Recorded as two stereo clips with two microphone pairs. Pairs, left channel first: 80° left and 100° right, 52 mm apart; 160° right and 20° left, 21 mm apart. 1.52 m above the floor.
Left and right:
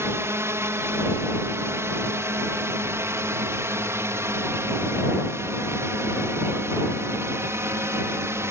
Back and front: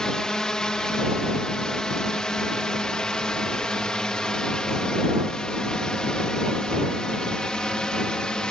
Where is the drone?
110° right; by 8.5 s 120° right.